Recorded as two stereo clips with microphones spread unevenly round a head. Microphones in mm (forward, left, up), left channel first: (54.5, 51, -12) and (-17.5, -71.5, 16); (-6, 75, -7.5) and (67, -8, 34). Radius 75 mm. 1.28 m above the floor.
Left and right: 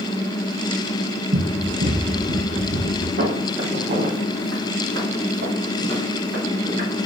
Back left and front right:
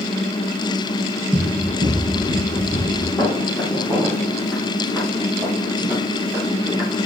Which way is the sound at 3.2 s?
140° right.